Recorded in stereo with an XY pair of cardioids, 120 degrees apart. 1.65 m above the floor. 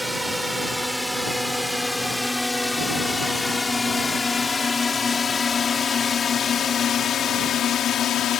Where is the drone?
5° right; by 8.4 s 60° left.